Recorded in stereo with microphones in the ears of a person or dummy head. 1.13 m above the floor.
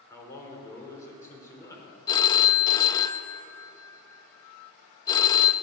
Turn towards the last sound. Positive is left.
turn(degrees=25)  # may be behind; listen again after turning